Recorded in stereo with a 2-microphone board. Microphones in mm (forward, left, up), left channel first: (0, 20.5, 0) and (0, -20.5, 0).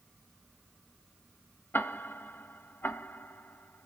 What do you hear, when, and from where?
1.7 s ticking: 60° left (ahead or behind), 0.9 m